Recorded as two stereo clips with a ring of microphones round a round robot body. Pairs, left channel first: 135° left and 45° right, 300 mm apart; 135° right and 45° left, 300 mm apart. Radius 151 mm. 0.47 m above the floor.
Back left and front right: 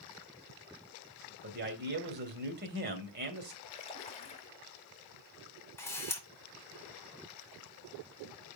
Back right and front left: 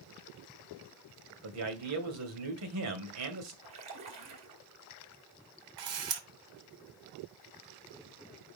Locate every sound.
1.4 s a man speaking: 10° left, 2.5 m
3.6 s a splash: 70° left, 2 m
5.8 s a camera shutter: 55° left, 1.7 m